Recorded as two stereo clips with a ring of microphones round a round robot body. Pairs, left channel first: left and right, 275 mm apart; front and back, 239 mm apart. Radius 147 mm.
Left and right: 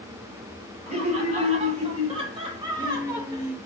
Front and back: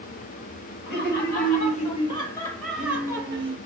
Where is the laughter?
30° right, 1.4 m; by 3.5 s 165° right, 1.0 m.